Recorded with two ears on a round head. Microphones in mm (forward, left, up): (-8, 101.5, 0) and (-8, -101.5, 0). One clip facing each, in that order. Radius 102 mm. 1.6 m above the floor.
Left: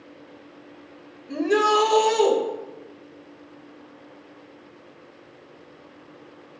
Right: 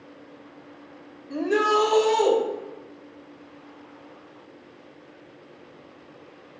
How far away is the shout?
About 1.9 m.